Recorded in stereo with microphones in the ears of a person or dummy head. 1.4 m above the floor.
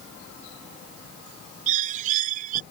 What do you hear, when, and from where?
1.7 s a bird: 40° right (ahead or behind)